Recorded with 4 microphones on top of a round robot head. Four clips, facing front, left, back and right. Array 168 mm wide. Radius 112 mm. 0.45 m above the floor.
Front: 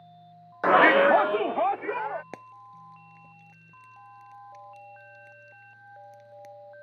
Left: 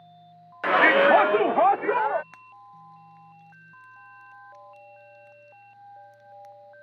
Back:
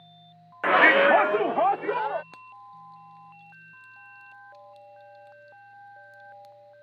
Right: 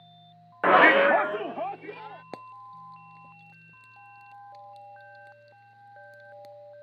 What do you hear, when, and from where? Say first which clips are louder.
0.6 s a shout: even, front 1 dB; 60° right; by 2.2 s 105° left
2.3 s frying: right 5 dB, front 1 dB; 55° right